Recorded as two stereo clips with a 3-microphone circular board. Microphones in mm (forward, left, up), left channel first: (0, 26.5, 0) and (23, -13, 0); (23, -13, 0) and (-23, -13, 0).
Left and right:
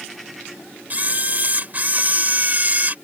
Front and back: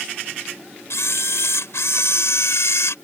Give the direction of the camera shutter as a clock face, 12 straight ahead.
12 o'clock.